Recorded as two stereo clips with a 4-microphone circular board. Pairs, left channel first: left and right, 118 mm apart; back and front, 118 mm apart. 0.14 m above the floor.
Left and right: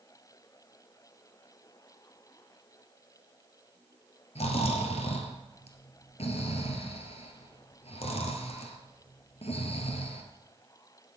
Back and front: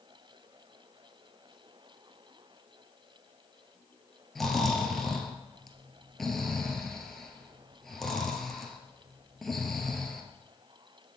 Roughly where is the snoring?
Left.